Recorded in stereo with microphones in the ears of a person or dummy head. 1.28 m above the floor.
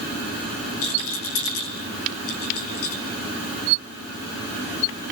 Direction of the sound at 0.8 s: 70° left (ahead or behind).